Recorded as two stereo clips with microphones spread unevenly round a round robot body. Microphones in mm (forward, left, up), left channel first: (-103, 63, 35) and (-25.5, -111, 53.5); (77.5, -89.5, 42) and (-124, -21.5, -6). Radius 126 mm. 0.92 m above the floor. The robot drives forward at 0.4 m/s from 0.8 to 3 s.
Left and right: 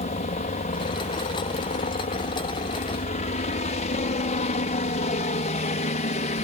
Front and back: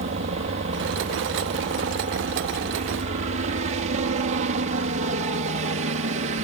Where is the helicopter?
140° left.